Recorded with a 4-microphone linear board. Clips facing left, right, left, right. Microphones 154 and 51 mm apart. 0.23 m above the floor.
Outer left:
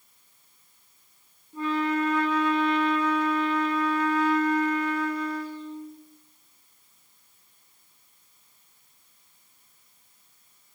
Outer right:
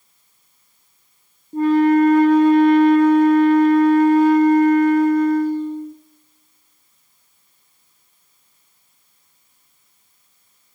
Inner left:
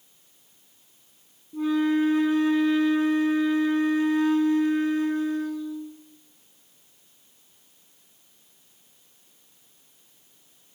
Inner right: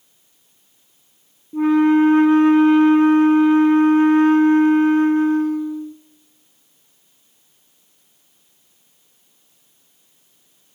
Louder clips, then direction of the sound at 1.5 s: Outer right 13 dB, inner right 9 dB; 45° right (ahead or behind).